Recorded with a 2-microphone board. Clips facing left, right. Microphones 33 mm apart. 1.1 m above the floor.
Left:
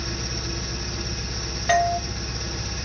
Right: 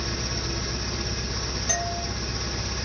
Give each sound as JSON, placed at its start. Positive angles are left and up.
{"t": 0.0, "sound": "an engine running", "side_deg": -5, "distance_m": 5.0}
{"t": 1.7, "sound": "a doorbell", "side_deg": 40, "distance_m": 1.5}